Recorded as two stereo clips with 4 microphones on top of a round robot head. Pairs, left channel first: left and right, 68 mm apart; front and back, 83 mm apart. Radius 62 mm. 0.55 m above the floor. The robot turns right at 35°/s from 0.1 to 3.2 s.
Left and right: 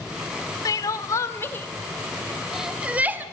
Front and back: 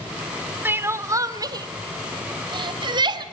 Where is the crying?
120° left, 1.5 m; by 3.2 s 150° right, 1.5 m.